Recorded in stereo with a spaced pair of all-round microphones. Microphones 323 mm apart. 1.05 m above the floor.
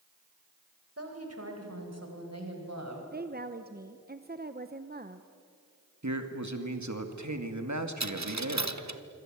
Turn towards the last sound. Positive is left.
turn(degrees=-60)  # may be behind; listen again after turning